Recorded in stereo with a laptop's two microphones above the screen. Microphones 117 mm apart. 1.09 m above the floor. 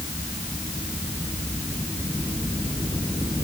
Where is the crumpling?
No crumpling in this recording.